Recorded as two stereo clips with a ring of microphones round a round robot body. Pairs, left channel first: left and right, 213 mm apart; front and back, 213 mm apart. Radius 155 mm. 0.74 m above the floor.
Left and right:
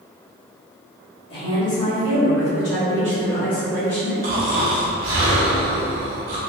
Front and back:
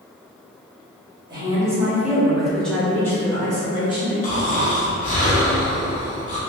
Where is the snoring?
50° right, 0.6 m.